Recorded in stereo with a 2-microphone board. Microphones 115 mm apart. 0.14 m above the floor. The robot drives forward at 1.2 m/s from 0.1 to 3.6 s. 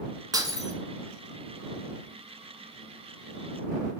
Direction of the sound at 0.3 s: 35° right (ahead or behind).